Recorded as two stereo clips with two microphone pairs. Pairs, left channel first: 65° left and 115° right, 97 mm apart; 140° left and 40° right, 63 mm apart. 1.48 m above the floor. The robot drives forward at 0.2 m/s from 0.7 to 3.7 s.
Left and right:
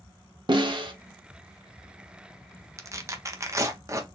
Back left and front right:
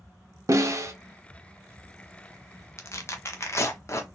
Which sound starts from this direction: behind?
Tearing paper, at 2.8 s.